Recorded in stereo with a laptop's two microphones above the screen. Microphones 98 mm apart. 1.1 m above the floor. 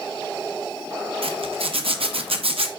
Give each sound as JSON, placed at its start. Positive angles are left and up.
{"t": 1.2, "sound": "a zipper", "side_deg": -75, "distance_m": 1.0}